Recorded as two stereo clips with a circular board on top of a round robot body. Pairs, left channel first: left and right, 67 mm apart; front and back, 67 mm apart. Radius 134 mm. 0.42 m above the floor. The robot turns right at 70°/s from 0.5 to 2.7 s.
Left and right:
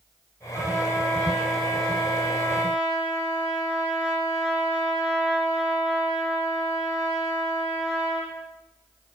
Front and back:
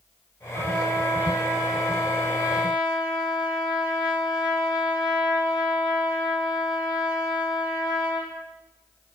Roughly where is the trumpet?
Behind.